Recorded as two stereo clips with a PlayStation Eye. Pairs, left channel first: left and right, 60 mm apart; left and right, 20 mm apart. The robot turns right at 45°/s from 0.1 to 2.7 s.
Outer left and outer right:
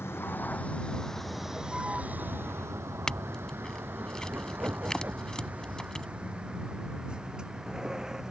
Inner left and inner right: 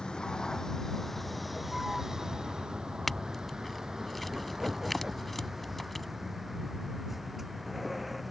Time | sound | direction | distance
0.0 | a vehicle | 45° left (ahead or behind) | ?
3.1 | a clink | 10° left (ahead or behind) | ?